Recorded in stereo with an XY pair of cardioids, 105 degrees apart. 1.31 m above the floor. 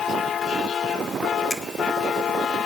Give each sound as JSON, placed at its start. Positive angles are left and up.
{"t": 1.5, "sound": "a finger snap", "azimuth_deg": 15, "distance_m": 1.6}